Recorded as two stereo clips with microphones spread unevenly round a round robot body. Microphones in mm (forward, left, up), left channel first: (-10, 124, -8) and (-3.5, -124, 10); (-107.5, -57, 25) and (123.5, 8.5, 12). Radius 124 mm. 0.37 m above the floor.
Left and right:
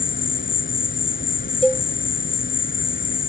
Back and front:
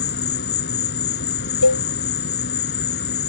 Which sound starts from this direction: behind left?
An insect, at 0.0 s.